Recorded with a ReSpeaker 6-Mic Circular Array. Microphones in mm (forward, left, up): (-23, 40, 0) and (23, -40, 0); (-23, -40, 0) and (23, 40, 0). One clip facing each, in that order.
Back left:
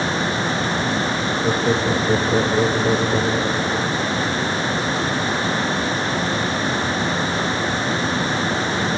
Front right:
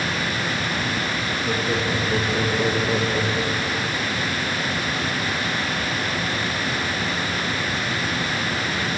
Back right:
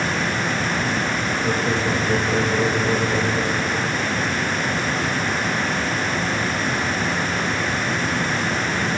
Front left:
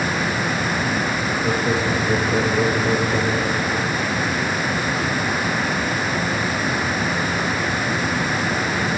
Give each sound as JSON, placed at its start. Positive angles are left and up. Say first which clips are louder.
{"t": 1.4, "sound": "laughter", "louder": "back left 5 dB, front left 1 dB", "azimuth_deg": 145, "distance_m": 7.0}